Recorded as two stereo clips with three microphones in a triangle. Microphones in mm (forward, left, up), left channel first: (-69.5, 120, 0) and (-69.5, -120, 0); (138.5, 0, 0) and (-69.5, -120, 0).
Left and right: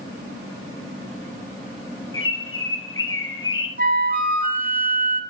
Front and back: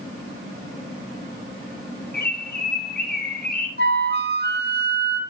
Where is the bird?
70° left, 3.5 m.